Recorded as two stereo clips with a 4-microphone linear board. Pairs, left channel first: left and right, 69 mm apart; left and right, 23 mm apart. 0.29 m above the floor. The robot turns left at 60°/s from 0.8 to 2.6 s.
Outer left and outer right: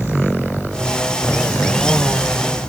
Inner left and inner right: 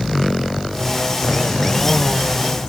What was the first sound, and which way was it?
Only background noise.